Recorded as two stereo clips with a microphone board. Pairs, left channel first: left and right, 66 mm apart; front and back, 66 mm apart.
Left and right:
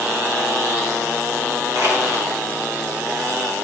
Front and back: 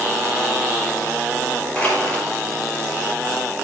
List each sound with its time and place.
1.8 s crushing: 65° right, 4.5 m